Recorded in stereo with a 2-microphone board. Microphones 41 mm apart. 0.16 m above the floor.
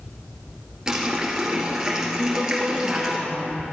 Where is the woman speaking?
40° right (ahead or behind), 2 m.